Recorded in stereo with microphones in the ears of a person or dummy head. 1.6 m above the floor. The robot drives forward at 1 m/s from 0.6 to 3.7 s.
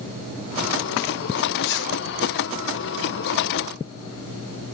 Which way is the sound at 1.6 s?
65° left (ahead or behind).